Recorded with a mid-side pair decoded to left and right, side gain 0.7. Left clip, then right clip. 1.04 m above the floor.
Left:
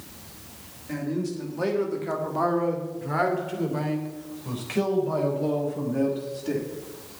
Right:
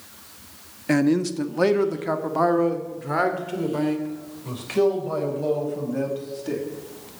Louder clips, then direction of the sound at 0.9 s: Right 9 dB; 60° right.